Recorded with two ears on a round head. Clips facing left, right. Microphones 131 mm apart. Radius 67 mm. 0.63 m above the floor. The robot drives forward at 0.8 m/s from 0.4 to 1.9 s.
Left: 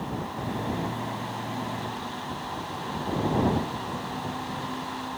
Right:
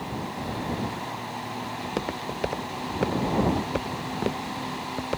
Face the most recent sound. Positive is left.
turn(degrees=-75)  # may be behind; listen again after turning